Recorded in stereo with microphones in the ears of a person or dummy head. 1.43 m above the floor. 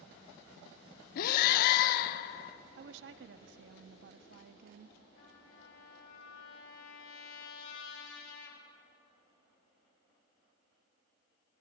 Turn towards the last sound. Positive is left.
turn(degrees=85)